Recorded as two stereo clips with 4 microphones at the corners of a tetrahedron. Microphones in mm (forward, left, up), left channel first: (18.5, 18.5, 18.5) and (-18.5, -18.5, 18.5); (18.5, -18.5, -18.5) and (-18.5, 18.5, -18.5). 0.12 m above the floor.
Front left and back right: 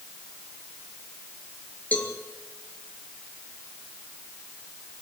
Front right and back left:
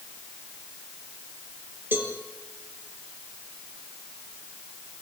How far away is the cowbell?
About 3 m.